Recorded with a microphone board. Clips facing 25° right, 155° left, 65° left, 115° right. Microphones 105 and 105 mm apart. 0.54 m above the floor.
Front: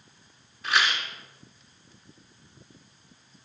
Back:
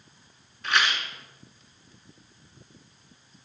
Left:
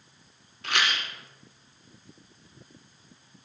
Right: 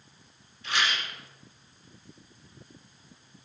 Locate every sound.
0.6 s a rattle: 65° left, 1.0 m